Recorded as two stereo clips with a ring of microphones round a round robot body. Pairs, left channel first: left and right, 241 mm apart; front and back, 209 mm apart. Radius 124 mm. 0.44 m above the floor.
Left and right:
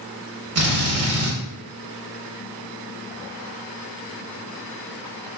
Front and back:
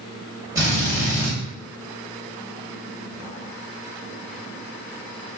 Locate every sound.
0.6 s a drill: 105° right, 1.6 m